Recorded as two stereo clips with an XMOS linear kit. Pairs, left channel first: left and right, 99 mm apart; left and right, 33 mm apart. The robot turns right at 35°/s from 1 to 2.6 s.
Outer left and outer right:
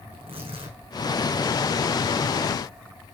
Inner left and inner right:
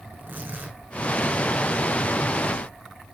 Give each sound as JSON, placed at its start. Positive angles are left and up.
{"t": 0.1, "sound": "tearing paper", "side_deg": -75, "distance_m": 5.0}